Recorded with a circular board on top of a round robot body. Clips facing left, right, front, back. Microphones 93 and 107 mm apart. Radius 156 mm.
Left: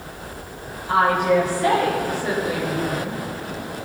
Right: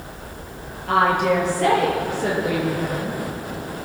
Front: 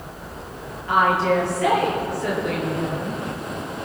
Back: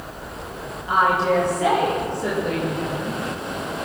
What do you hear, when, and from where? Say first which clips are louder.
0.9 s a woman speaking: even, even; 105° right, 10 m; by 3.2 s 115° right, 10.5 m